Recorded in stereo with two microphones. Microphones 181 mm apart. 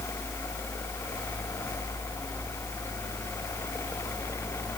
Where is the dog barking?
No dog barking in this recording.